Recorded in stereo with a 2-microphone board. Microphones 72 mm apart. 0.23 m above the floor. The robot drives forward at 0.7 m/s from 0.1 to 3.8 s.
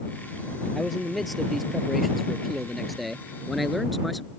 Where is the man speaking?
Centre (ahead or behind).